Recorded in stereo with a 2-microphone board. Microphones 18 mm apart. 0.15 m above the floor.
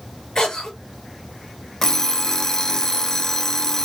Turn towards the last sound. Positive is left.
turn(degrees=25)  # may be behind; listen again after turning